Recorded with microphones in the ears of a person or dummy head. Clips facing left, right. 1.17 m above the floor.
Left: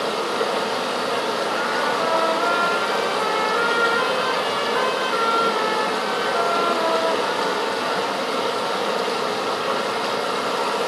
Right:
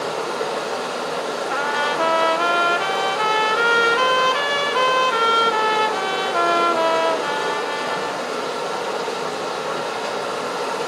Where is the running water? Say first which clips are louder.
Left 1 dB; 60° left (ahead or behind), 1.6 m.